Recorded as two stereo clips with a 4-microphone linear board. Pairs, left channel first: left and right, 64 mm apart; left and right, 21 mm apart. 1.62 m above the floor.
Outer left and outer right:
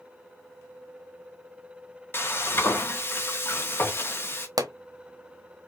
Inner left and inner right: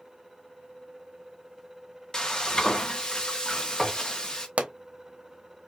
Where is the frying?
35° left (ahead or behind), 1.1 m.